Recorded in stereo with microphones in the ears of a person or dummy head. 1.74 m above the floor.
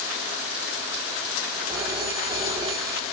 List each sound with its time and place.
1.7 s a phone ringing: 20° right (ahead or behind), 1.1 m